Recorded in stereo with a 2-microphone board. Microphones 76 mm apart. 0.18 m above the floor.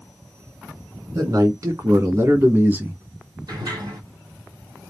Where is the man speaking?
50° right (ahead or behind), 1.7 m; by 3.0 s 20° right (ahead or behind), 1.1 m.